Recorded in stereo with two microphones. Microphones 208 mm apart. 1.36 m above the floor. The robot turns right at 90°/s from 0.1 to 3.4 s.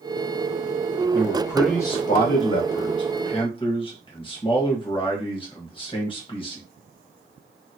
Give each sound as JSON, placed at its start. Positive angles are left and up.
{"t": 1.1, "sound": "a man speaking", "azimuth_deg": -45, "distance_m": 1.3}